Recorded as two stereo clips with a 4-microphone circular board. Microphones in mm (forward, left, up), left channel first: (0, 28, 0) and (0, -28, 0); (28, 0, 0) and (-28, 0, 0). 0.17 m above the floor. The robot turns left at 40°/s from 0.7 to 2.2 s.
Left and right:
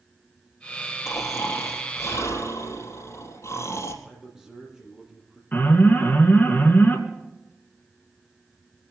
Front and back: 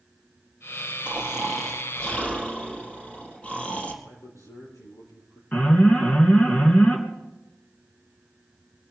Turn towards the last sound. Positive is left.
turn(degrees=50)